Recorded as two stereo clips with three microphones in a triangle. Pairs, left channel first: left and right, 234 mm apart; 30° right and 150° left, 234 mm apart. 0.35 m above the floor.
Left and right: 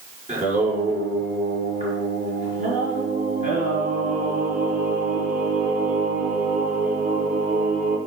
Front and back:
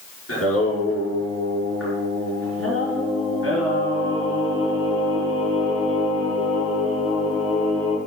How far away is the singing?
About 5 m.